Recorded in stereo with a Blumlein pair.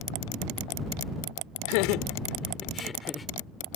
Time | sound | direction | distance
1.7 | laughter | 45° left | ?